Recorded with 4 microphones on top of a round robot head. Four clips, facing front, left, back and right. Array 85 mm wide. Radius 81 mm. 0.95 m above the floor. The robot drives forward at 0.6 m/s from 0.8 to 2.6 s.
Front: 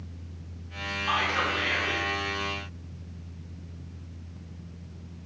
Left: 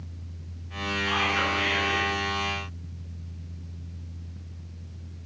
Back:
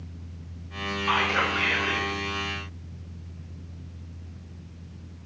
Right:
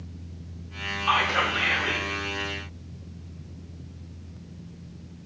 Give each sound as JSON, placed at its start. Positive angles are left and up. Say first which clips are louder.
{"t": 1.1, "sound": "whispering", "louder": "right 4 dB, back 2 dB", "azimuth_deg": -80, "distance_m": 3.5}